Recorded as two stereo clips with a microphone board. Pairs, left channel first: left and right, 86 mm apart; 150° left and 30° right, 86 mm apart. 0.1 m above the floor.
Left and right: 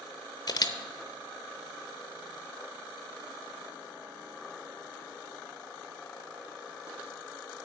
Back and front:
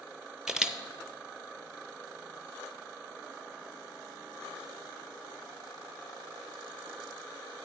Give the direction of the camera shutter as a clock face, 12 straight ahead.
10 o'clock.